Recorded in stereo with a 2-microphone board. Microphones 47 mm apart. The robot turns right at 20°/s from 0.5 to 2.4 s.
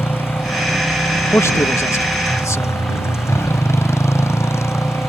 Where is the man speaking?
70° left (ahead or behind); by 2.8 s 85° left.